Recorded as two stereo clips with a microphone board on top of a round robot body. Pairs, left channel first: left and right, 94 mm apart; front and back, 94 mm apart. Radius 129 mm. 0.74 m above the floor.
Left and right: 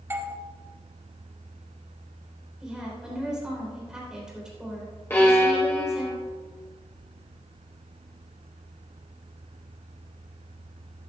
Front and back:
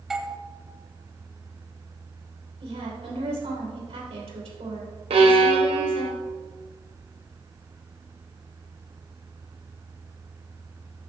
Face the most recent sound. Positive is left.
turn(degrees=160)